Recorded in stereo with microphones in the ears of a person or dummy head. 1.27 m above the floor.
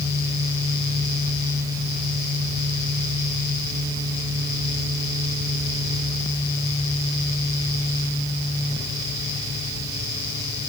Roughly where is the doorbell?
No doorbell in this recording.